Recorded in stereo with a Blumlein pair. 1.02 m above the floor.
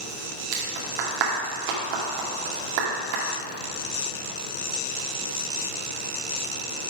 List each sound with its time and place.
0.5 s a clap: 45° right, 2 m